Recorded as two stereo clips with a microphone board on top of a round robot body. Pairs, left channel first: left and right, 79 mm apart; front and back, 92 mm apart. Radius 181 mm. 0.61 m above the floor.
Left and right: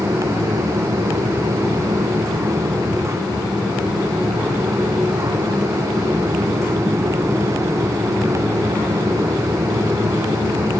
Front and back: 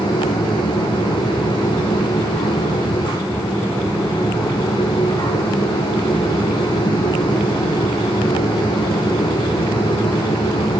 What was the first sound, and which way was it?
Only background noise.